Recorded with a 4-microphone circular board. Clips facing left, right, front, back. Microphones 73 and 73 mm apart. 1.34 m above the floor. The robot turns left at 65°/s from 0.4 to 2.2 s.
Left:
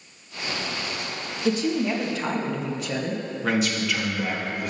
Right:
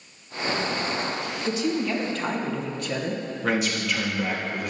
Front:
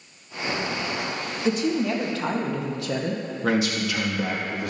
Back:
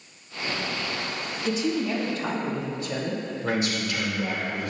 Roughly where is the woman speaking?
Ahead left.